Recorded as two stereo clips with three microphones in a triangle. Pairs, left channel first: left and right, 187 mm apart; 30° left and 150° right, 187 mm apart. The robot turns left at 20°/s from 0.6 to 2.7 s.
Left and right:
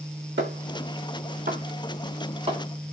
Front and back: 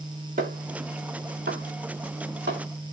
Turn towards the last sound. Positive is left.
turn(degrees=-150)